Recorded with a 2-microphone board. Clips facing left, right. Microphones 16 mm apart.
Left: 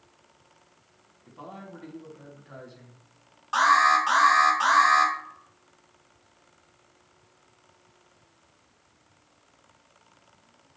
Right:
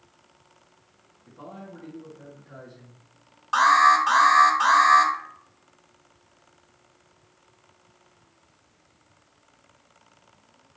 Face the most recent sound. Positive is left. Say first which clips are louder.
# right 3 dB
turn(degrees=-10)  # may be behind; listen again after turning